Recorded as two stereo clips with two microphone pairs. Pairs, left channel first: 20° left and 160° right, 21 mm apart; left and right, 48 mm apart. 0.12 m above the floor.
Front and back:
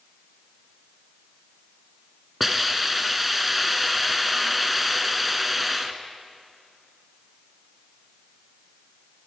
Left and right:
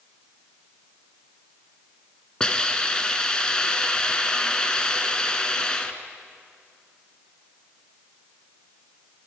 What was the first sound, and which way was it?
A hiss, 120° left.